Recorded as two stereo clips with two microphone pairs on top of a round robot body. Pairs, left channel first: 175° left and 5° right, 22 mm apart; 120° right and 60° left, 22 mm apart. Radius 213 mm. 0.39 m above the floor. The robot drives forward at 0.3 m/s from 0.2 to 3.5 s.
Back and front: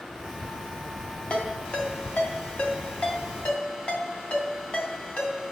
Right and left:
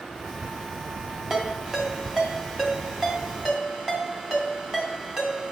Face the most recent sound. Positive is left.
turn(degrees=150)